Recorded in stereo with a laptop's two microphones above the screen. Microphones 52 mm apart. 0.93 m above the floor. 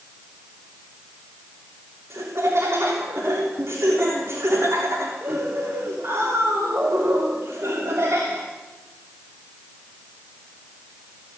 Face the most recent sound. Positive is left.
turn(degrees=-60)  # may be behind; listen again after turning